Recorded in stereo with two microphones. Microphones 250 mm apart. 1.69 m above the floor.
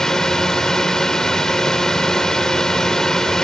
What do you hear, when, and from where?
0.0 s a drone: centre (ahead or behind)